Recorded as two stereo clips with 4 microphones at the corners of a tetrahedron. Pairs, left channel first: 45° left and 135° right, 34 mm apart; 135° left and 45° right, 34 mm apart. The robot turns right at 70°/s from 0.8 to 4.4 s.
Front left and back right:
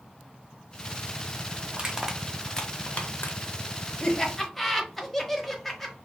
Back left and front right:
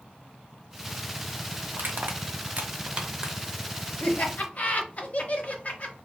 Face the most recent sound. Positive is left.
turn(degrees=130)